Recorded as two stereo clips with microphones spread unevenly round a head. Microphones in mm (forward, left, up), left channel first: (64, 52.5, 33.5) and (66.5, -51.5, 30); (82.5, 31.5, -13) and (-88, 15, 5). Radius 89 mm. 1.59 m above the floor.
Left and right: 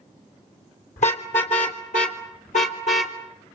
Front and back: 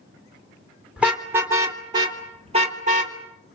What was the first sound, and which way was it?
A car horn, 105° left.